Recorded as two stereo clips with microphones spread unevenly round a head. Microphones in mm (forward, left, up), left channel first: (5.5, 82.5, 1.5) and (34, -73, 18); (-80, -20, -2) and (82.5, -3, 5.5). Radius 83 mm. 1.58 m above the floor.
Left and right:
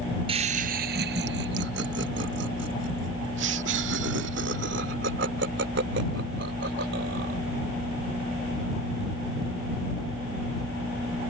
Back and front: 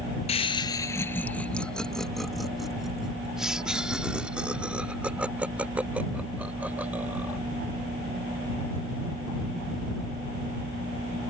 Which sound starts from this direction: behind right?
Laughter, at 0.3 s.